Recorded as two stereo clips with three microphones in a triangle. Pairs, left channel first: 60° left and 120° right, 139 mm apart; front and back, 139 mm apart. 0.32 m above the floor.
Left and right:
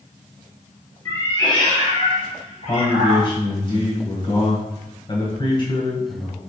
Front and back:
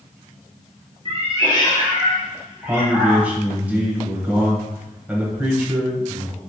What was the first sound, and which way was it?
A cat meowing, 130° left.